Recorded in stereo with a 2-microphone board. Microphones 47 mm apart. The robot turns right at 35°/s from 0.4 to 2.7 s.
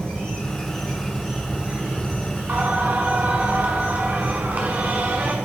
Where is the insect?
165° left, 2 m; by 5.5 s 115° right, 2 m.